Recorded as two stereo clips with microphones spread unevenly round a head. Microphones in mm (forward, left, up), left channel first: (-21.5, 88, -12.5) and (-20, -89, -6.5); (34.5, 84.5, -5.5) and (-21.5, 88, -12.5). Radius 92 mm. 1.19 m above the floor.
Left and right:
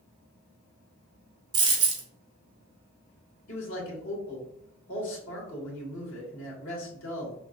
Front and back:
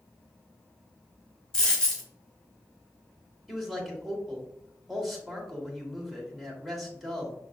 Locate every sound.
1.5 s a dropped coin: 55° right, 1.0 m
3.5 s a man speaking: 90° left, 1.9 m